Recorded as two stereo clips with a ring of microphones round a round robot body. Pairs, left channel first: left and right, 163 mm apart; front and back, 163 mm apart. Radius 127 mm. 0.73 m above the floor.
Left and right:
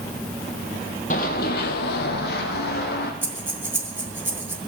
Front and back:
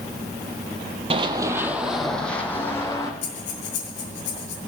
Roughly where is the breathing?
Ahead.